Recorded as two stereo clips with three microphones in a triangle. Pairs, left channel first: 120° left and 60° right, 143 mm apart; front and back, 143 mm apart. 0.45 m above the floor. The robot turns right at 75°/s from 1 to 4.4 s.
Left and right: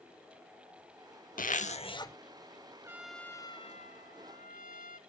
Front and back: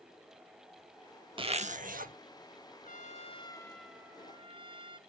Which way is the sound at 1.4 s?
130° left.